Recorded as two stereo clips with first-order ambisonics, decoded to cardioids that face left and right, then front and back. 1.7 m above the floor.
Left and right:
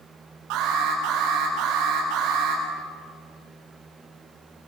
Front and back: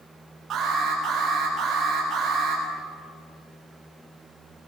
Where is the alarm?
115° right, 8.5 m.